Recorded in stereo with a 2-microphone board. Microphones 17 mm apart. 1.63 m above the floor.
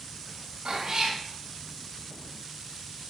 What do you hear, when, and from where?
0.7 s a cat meowing: 65° right (ahead or behind), 3 m